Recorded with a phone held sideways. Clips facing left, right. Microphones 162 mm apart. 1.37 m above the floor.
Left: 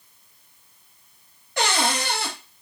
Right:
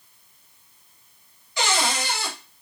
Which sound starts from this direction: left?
A cupboard door, at 1.6 s.